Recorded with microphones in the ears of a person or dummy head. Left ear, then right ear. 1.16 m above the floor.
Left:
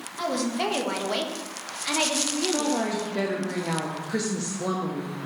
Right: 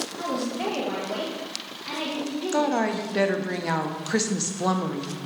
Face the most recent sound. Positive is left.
turn(degrees=-30)  # may be behind; listen again after turning